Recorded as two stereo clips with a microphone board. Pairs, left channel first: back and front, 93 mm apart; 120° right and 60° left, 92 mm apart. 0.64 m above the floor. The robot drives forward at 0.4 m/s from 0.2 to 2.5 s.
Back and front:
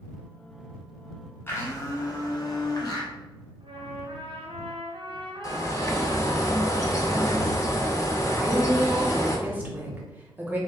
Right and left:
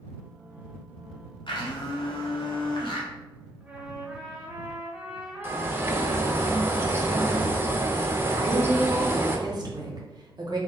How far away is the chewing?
No chewing in this recording.